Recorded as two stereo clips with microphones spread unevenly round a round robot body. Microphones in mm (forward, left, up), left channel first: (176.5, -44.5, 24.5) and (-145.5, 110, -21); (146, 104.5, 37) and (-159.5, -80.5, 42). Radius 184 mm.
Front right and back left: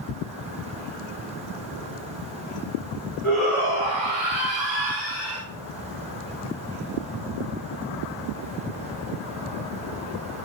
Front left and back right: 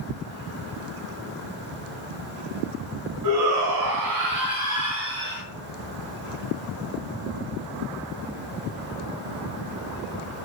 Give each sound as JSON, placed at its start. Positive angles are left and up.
{"t": 3.2, "sound": "a shout", "azimuth_deg": -115, "distance_m": 1.2}